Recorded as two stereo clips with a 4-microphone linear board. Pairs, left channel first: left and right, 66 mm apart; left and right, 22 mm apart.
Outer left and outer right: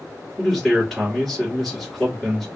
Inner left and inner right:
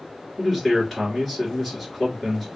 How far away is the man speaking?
About 3 m.